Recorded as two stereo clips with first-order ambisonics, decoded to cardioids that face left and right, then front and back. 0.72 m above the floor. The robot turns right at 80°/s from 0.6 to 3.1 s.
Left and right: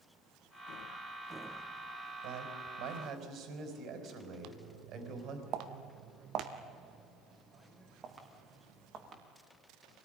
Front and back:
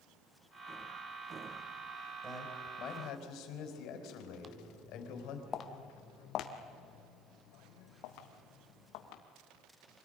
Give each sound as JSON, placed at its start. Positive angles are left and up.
{"t": 2.2, "sound": "a man speaking", "azimuth_deg": -110, "distance_m": 4.0}
{"t": 4.4, "sound": "footsteps", "azimuth_deg": -105, "distance_m": 1.1}